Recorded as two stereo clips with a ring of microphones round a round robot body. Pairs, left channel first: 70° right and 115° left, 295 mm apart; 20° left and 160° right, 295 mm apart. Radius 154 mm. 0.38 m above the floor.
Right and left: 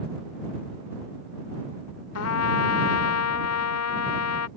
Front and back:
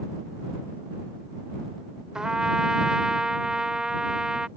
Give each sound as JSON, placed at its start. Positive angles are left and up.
{"t": 2.1, "sound": "a trumpet", "azimuth_deg": -70}